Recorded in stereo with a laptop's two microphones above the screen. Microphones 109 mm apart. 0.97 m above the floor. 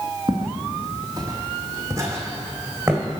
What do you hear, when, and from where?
0.3 s footsteps: 40° right (ahead or behind), 1.6 m; by 3.0 s 20° right (ahead or behind), 2.5 m